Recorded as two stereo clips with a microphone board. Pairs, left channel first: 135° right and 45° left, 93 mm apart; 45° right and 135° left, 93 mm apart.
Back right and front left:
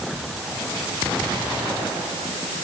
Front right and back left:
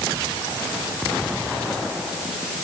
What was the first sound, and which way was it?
Only background noise.